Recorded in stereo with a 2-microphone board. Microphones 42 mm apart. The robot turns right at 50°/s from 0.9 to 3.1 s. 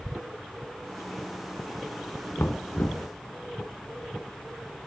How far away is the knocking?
About 1.9 m.